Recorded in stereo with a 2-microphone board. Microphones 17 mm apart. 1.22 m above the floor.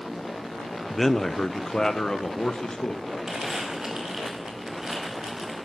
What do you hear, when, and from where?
0.9 s a man speaking: 10° left (ahead or behind), 0.6 m; by 3.0 s 55° left (ahead or behind), 2 m
3.3 s crumpling: 40° right (ahead or behind), 5.5 m